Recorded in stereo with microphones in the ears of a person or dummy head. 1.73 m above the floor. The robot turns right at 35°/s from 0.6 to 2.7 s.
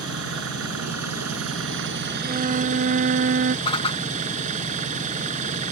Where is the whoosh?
30° left (ahead or behind).